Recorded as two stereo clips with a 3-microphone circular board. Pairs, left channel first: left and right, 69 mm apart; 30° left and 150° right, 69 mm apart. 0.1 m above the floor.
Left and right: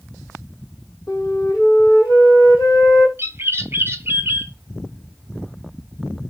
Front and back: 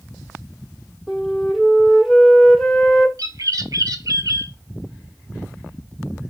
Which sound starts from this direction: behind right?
A bird, at 3.2 s.